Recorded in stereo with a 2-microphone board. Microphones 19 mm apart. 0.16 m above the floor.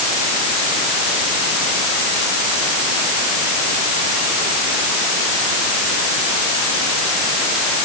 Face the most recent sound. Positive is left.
No sound to turn to.